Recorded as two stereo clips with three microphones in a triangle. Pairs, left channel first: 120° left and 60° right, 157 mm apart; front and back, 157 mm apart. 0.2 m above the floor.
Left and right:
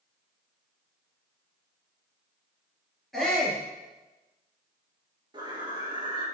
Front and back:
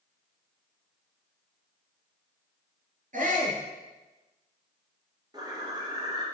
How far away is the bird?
About 2 m.